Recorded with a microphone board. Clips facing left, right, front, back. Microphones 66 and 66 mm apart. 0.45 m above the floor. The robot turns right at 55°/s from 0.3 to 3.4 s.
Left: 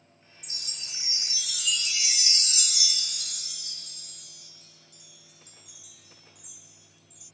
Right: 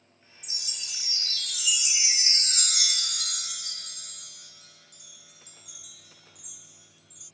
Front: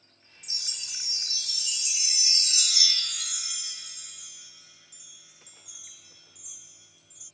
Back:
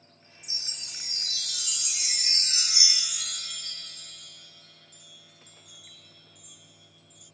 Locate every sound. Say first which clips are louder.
0.4 s a chime: right 1 dB, front 1 dB; 115° left; by 7.3 s 80° right